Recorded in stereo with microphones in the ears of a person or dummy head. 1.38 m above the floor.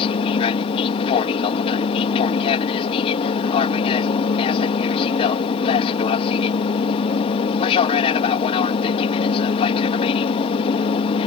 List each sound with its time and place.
0.0 s an aircraft: 25° left (ahead or behind)